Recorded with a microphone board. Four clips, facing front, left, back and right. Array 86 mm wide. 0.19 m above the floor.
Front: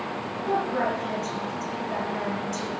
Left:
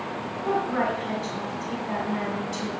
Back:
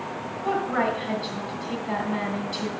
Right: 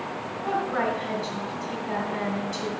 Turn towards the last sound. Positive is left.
turn(degrees=-175)